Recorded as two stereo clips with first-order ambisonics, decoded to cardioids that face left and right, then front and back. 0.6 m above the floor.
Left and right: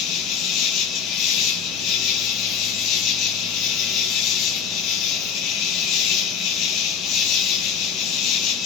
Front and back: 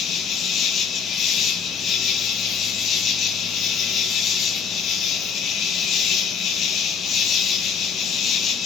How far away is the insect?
About 0.9 m.